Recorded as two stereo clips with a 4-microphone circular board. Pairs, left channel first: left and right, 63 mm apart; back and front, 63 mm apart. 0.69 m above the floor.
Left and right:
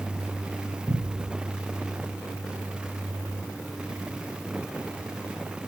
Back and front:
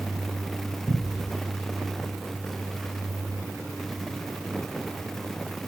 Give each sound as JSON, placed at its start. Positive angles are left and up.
{"t": 0.9, "sound": "a cupboard door", "azimuth_deg": -135, "distance_m": 4.5}